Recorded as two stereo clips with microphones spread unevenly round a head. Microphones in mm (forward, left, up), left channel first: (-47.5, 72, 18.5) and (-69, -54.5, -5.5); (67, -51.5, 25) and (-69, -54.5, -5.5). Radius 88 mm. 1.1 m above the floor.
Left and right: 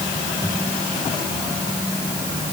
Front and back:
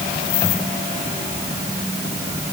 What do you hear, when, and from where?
Only background noise.